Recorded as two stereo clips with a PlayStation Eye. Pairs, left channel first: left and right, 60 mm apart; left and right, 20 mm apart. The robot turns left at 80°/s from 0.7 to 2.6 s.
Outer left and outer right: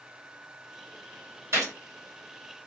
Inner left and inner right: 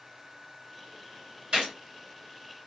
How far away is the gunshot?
About 2 m.